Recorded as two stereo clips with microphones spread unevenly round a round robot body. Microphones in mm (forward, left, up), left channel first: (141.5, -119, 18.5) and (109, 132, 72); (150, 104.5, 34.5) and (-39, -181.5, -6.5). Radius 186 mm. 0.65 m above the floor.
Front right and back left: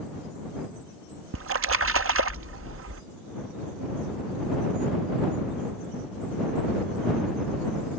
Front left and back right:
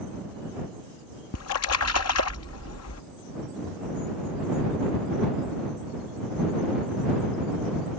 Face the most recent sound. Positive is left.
turn(degrees=85)